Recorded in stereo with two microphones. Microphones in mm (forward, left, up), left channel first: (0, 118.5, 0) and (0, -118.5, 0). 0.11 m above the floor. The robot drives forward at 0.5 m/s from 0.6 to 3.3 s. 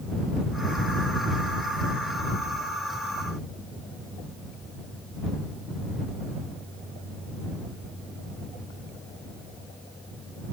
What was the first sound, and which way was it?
Only background noise.